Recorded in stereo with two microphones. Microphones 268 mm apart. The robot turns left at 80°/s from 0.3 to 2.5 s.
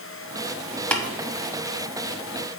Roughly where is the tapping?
Centre.